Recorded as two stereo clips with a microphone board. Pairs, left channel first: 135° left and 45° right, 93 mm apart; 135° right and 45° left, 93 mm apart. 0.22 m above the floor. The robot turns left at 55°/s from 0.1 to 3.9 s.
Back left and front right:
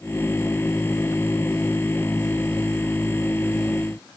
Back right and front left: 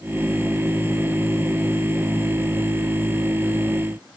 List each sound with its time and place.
Only background noise.